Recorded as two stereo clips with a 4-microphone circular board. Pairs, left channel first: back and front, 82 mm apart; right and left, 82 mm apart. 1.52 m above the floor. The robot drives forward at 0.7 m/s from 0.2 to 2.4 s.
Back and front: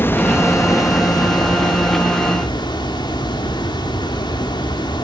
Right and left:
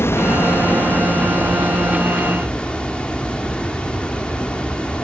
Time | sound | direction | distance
0.0 | running water | 130° right | 1.0 m